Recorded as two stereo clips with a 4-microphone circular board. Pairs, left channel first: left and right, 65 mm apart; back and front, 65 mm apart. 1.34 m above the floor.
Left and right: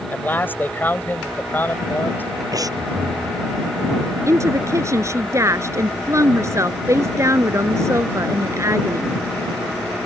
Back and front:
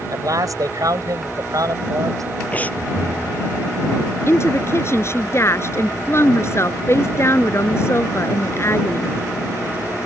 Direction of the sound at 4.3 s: 135° right.